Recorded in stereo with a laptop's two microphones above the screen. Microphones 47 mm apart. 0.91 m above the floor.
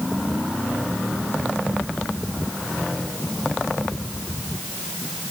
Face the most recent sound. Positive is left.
No sound to turn to.